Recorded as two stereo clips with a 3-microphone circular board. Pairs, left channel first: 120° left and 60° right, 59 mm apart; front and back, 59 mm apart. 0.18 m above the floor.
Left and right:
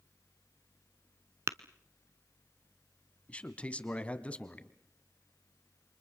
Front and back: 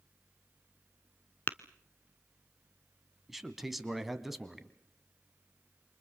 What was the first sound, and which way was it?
Tapping, 45° right.